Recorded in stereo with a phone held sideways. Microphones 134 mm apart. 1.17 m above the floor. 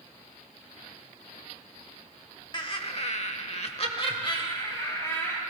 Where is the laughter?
35° left (ahead or behind), 1.2 m; by 5.4 s 25° left (ahead or behind), 2.5 m.